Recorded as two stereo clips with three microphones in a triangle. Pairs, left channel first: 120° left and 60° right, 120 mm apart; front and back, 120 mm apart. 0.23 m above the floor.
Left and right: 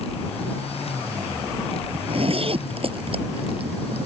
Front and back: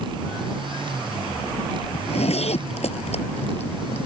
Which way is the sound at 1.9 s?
25° right.